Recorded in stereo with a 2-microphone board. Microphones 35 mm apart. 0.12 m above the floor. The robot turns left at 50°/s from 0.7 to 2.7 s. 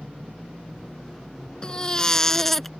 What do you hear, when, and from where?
1.6 s a baby crying: 25° left (ahead or behind); by 2.7 s 5° left (ahead or behind)